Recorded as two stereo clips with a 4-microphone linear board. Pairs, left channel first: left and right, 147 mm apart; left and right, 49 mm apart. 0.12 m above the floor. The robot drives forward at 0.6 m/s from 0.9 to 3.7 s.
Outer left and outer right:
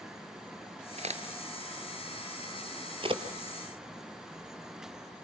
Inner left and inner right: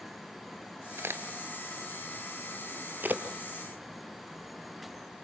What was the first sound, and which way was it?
A crack, 55° right (ahead or behind).